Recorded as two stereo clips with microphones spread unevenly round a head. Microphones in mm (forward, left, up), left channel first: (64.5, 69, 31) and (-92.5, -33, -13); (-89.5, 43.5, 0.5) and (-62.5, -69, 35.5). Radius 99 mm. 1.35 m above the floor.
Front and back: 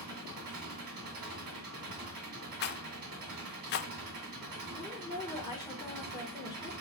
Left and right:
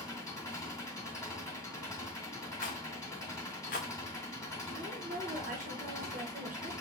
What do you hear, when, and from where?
0.0 s an engine running: 175° left, 2.5 m
2.6 s a rattle: 55° left, 0.5 m
4.7 s a woman speaking: 40° right, 1.2 m